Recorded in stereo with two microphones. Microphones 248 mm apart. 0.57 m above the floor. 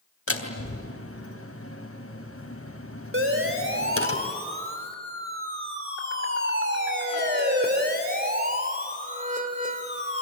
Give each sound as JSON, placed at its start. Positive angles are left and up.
{"t": 0.3, "sound": "a door slam", "side_deg": 70, "distance_m": 3.0}
{"t": 3.1, "sound": "a siren", "side_deg": -55, "distance_m": 3.5}